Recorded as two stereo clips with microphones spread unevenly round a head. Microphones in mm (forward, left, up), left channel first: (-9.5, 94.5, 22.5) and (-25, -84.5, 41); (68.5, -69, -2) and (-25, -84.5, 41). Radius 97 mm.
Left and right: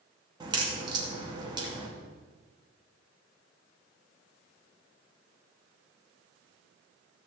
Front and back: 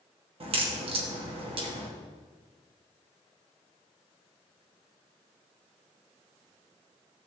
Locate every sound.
0.4 s a crack: 160° right, 2.5 m